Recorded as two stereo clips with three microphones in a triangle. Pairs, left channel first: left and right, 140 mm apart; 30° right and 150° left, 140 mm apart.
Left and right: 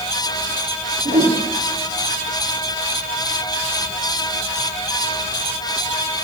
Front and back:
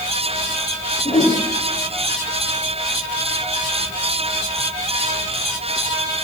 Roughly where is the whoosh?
Right.